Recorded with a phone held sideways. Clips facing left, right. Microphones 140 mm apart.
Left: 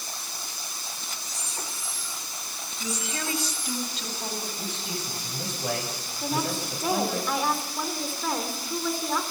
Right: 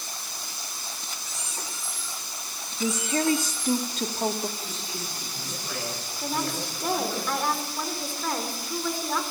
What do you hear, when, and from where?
1.2 s a squeak: 40° left (ahead or behind), 9.5 m
2.8 s a woman speaking: 55° right (ahead or behind), 2 m
4.6 s a man speaking: 85° left, 9 m
6.2 s a woman speaking: 5° left (ahead or behind), 3.5 m